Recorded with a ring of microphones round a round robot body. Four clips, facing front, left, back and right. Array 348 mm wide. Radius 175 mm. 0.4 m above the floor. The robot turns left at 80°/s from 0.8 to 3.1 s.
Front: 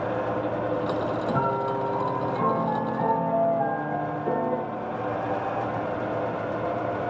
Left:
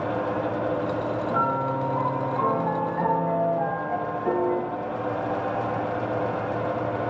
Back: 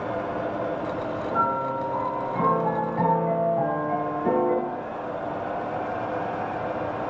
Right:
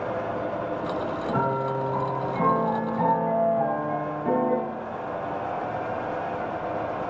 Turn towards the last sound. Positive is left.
turn(degrees=170)